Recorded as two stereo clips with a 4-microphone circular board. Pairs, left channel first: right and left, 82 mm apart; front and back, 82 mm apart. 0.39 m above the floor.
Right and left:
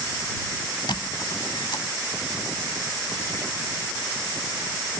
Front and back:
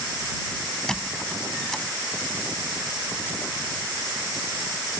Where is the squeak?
85° right.